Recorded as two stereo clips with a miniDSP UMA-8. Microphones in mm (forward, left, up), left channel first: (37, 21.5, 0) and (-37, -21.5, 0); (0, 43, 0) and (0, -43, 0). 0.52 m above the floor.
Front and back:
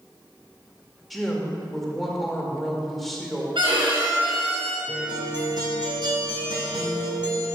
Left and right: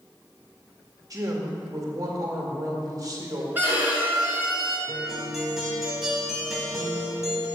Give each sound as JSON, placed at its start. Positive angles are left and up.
{"t": 1.1, "sound": "a woman speaking", "azimuth_deg": -60, "distance_m": 1.8}
{"t": 3.5, "sound": "a violin", "azimuth_deg": -155, "distance_m": 4.0}
{"t": 4.9, "sound": "a guitar", "azimuth_deg": -175, "distance_m": 2.5}